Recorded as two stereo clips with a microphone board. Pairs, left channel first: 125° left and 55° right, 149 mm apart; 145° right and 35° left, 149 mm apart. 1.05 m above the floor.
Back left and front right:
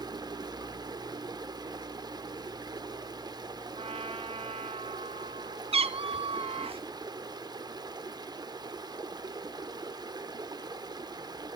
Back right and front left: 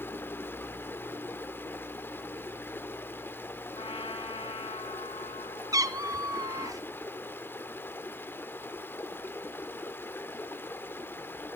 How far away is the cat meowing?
About 0.6 m.